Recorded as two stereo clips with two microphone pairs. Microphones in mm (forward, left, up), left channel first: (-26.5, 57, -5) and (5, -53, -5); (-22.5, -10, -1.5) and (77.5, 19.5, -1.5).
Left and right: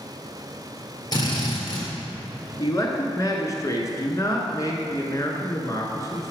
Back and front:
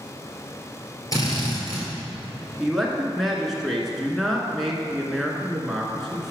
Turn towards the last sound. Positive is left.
turn(degrees=105)